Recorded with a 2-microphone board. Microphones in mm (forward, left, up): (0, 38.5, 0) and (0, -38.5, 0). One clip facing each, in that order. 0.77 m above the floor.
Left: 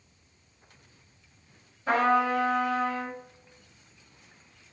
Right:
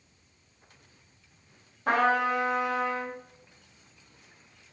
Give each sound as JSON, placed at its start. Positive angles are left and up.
{"t": 1.9, "sound": "a trumpet", "side_deg": -65, "distance_m": 1.6}